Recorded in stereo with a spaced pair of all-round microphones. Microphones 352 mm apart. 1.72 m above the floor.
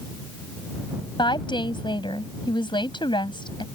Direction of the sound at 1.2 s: 15° left (ahead or behind).